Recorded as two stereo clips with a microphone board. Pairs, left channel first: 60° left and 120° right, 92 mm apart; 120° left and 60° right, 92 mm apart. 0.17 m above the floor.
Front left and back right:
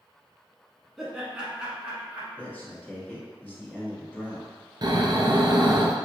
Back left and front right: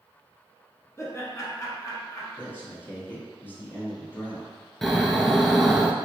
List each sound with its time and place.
1.0 s laughter: 155° left, 1.2 m; by 2.3 s 165° left, 1.7 m
2.4 s a man speaking: 95° left, 1.1 m
4.8 s snoring: 155° right, 0.5 m